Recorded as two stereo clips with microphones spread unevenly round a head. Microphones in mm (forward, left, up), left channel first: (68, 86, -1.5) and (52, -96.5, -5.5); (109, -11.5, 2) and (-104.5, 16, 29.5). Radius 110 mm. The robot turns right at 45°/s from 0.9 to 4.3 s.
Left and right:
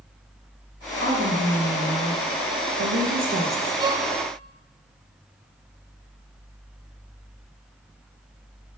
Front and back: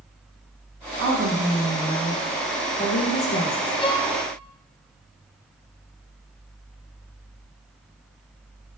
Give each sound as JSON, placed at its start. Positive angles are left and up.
{"t": 1.0, "sound": "a woman speaking", "azimuth_deg": -150, "distance_m": 1.5}
{"t": 3.8, "sound": "a violin", "azimuth_deg": -45, "distance_m": 0.7}